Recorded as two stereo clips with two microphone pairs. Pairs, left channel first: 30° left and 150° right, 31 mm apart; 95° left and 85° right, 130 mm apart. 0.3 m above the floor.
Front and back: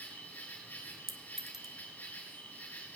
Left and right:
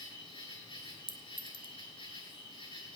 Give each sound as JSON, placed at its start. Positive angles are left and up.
{"t": 0.0, "sound": "an insect", "azimuth_deg": 55, "distance_m": 5.5}
{"t": 1.1, "sound": "a clink", "azimuth_deg": 135, "distance_m": 1.4}